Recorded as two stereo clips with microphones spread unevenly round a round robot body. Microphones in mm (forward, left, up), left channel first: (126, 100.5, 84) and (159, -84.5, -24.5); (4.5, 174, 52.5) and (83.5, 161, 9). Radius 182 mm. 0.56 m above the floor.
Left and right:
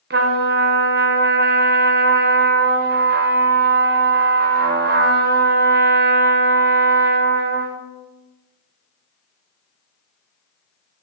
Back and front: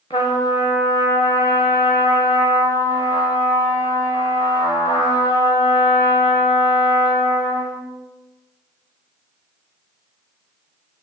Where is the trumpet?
115° right, 0.7 m.